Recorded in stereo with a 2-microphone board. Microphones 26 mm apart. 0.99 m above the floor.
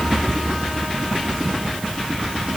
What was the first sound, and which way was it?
Only background noise.